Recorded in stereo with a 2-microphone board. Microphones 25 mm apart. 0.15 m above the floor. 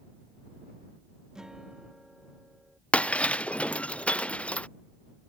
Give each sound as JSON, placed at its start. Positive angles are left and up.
{"t": 1.4, "sound": "a guitar", "side_deg": -25}
{"t": 2.9, "sound": "breaking glass", "side_deg": 60}